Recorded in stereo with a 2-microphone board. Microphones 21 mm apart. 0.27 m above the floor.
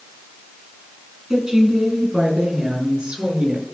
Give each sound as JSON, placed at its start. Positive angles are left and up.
{"t": 1.3, "sound": "a woman speaking", "side_deg": -35, "distance_m": 3.0}